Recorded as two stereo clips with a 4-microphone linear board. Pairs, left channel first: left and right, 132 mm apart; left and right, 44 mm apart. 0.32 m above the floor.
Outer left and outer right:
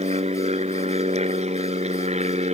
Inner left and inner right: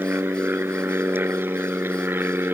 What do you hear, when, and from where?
0.0 s an aircraft: 50° right (ahead or behind)